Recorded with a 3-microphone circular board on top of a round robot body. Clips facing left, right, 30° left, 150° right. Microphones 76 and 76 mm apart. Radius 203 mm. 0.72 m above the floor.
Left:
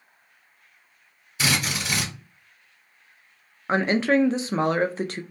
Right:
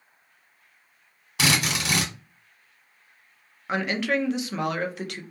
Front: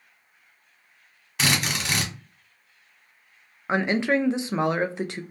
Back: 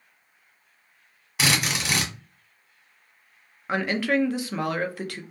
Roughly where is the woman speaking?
Left.